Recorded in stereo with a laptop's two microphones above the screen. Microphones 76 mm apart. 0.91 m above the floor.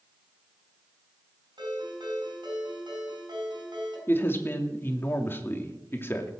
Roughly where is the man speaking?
Left.